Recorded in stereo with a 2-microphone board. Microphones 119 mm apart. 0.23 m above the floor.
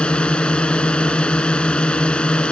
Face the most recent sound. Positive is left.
turn(degrees=10)  # may be behind; listen again after turning